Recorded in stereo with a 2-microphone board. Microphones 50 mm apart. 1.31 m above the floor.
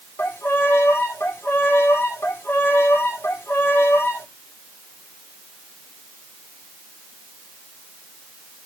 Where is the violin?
60° left (ahead or behind), 1.5 m.